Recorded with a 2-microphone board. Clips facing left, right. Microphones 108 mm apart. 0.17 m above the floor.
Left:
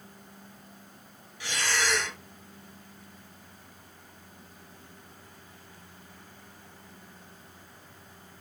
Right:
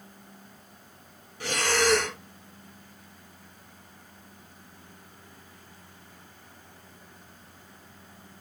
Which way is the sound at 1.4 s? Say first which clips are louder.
Right 5 dB; 55° right (ahead or behind).